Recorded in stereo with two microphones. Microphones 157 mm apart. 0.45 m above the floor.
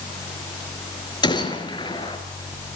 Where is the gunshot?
30° left (ahead or behind), 2.5 m.